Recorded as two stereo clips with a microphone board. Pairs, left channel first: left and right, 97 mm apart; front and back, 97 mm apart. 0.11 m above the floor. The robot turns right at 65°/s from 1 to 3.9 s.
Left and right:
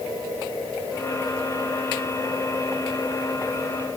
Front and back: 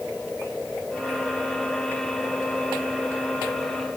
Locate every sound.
Only background noise.